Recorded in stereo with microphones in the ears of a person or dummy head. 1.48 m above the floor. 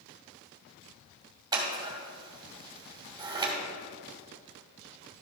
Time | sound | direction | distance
1.5 | scissors | 20° right (ahead or behind) | 2 m